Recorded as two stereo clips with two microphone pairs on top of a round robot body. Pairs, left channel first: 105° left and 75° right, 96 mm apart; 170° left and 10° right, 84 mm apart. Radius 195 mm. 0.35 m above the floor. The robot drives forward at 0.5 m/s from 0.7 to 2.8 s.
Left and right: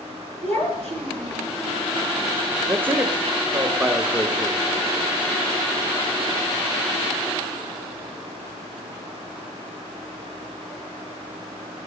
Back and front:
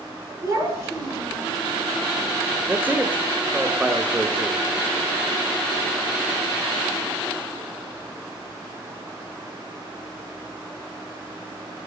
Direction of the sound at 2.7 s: 25° right.